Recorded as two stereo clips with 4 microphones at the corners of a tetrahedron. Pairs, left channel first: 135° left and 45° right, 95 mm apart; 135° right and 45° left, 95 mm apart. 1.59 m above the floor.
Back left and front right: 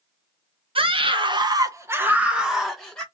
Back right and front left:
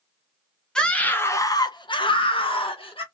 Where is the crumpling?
No crumpling in this recording.